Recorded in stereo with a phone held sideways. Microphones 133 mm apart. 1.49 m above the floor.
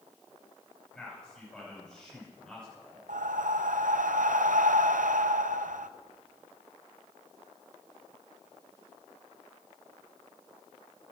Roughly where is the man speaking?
Centre.